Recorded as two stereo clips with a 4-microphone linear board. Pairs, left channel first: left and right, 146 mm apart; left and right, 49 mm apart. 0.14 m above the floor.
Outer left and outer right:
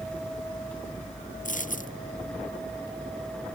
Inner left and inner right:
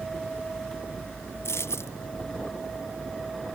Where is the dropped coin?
65° left (ahead or behind).